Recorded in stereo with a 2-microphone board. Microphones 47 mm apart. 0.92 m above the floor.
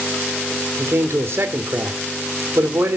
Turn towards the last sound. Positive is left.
turn(degrees=-60)  # may be behind; listen again after turning